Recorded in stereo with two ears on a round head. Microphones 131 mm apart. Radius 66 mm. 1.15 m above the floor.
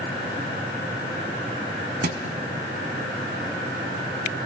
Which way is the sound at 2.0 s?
65° right (ahead or behind).